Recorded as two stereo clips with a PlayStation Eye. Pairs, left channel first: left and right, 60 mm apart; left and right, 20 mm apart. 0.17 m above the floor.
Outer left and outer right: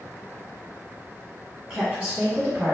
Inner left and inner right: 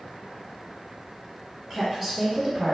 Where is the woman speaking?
15° right (ahead or behind), 1.1 m; by 2.8 s 30° right (ahead or behind), 1.2 m.